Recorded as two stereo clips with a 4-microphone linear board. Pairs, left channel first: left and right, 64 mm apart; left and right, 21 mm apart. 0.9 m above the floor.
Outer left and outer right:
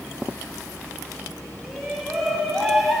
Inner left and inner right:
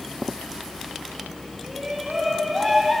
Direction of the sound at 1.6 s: Centre (ahead or behind).